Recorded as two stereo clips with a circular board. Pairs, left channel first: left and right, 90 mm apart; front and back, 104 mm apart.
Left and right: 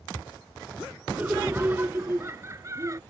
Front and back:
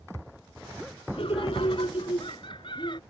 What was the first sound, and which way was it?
Laughter, 15° right.